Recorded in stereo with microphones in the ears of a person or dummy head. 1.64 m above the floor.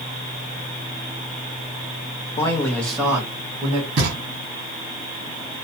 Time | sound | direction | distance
2.4 | a man speaking | 30° left (ahead or behind) | 0.5 m
4.0 | knocking | 40° right (ahead or behind) | 1.0 m